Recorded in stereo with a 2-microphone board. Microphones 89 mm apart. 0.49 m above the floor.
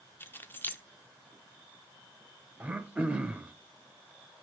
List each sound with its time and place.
0.2 s keys jangling: 25° left (ahead or behind), 0.7 m
2.6 s throat clearing: 15° right (ahead or behind), 0.7 m